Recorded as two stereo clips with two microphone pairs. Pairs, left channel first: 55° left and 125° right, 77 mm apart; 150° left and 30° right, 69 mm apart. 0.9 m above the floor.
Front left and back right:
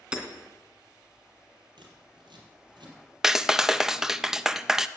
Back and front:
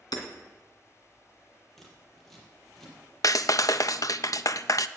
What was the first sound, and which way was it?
Hammering, 155° left.